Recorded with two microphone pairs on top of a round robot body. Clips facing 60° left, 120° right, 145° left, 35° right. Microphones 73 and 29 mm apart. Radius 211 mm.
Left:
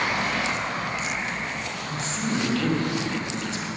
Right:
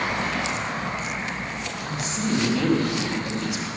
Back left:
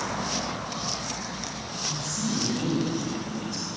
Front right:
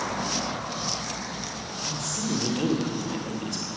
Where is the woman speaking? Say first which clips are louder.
Right 3 dB, even; 45° right, 2.5 m.